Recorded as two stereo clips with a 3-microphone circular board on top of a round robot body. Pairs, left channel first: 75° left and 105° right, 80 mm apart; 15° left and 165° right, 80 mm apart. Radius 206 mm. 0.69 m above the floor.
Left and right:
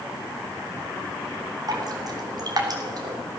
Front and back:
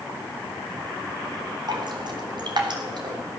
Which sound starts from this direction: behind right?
Dripping, at 1.7 s.